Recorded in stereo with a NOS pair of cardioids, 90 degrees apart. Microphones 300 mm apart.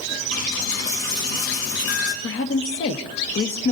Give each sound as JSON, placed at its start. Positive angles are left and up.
{"t": 0.3, "sound": "a dropped coin", "azimuth_deg": 65, "distance_m": 4.0}
{"t": 2.2, "sound": "a woman speaking", "azimuth_deg": 45, "distance_m": 1.5}